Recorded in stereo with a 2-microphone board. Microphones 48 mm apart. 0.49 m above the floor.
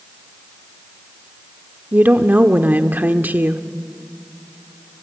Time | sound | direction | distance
1.9 | a woman speaking | 40° right (ahead or behind) | 1.0 m